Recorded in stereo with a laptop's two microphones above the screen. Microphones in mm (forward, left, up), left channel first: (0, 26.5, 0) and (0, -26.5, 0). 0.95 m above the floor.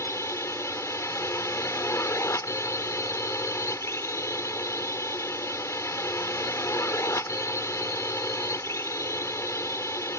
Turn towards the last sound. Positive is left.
turn(degrees=65)  # may be behind; listen again after turning